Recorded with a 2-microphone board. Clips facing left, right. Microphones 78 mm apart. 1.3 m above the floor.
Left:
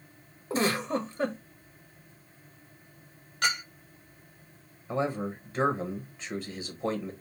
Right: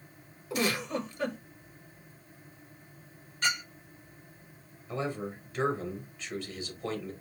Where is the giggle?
35° left (ahead or behind), 0.9 m.